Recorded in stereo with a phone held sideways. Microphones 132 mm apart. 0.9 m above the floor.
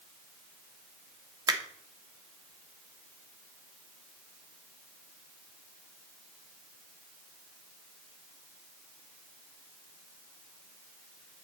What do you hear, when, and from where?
1.5 s a finger snap: 30° right (ahead or behind), 0.8 m